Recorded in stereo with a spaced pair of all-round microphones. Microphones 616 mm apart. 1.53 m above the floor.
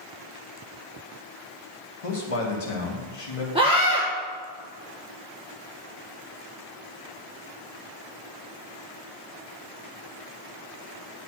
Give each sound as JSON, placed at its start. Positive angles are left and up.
{"t": 2.0, "sound": "a man speaking", "side_deg": 60, "distance_m": 1.3}
{"t": 3.5, "sound": "a scream", "side_deg": -10, "distance_m": 1.0}